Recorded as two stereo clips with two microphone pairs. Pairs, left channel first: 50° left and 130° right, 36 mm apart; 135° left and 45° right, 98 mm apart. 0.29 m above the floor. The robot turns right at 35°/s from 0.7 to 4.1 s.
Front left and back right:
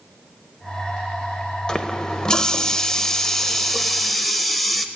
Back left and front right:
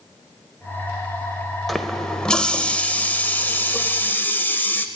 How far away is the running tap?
About 0.6 m.